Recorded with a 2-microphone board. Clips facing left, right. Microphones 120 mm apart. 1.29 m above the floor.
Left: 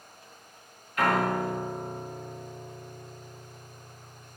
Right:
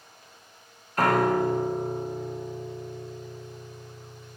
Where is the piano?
40° right (ahead or behind), 0.6 m.